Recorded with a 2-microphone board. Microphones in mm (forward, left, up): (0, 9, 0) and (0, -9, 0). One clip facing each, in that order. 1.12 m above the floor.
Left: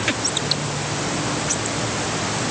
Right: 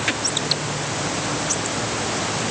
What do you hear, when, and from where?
Only background noise.